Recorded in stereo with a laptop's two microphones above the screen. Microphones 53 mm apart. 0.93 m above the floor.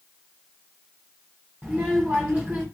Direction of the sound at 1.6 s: 15° right (ahead or behind).